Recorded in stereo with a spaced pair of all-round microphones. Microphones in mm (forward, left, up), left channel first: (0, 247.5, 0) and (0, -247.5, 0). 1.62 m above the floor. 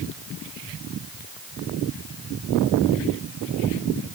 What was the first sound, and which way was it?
Only background noise.